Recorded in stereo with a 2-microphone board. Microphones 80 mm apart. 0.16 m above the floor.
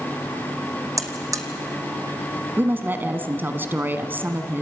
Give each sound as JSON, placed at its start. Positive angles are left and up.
{"t": 1.0, "sound": "a buzzer", "side_deg": -45, "distance_m": 1.5}
{"t": 2.6, "sound": "a woman speaking", "side_deg": -25, "distance_m": 1.3}